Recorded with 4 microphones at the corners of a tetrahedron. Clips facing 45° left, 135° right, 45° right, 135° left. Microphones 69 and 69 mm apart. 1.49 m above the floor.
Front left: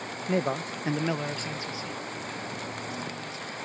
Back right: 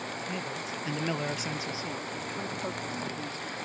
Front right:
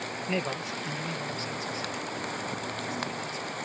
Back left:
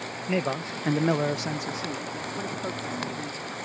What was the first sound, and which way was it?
A man speaking, 55° left.